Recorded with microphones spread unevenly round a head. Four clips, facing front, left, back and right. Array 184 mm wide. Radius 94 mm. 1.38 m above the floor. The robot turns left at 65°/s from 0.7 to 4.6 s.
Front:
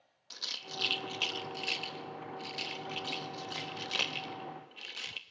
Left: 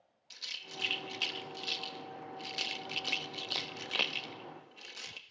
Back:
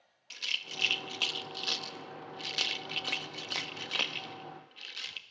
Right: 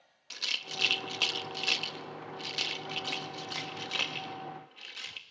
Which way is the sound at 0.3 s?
60° right.